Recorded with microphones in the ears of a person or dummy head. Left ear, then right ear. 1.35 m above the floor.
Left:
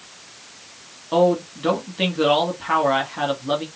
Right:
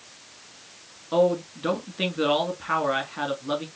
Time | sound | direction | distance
1.1 | a man speaking | 5° right (ahead or behind) | 1.5 m